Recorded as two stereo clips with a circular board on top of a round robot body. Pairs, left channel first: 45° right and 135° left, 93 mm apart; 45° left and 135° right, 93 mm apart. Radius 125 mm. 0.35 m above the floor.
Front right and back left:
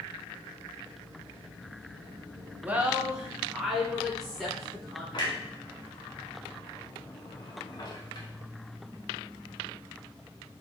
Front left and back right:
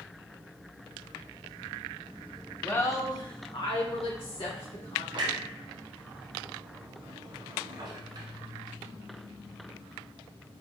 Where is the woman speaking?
90° left, 0.8 m; by 5.0 s 40° left, 2.5 m.